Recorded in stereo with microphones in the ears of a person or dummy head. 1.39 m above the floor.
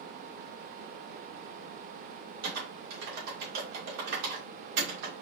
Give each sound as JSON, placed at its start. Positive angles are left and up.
{"t": 2.4, "sound": "typing on a keyboard", "side_deg": -60, "distance_m": 1.6}